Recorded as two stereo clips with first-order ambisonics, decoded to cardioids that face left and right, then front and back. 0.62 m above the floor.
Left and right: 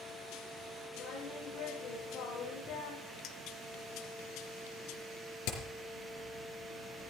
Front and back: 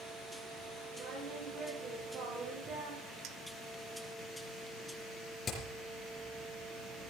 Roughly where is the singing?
Behind left.